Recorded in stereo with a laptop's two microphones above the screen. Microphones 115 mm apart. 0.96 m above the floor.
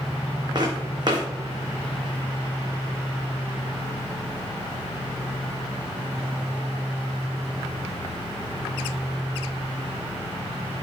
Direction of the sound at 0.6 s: 40° right (ahead or behind).